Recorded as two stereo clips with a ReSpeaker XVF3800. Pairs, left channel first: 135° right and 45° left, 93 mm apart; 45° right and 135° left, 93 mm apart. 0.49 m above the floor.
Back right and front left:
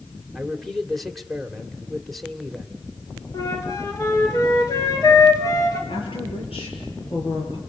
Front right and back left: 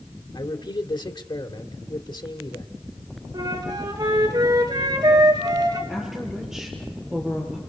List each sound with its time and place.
0.3 s a man speaking: 45° right, 2 m
3.3 s a flute: 175° left, 3.5 m
5.9 s a woman speaking: 140° right, 8.5 m